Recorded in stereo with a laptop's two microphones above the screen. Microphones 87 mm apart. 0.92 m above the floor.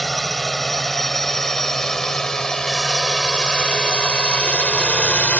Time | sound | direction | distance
0.0 | a drone | centre (ahead or behind) | ?